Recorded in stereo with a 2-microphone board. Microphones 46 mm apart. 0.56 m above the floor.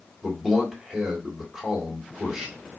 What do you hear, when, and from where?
0.2 s a man speaking: 10° right (ahead or behind), 1.6 m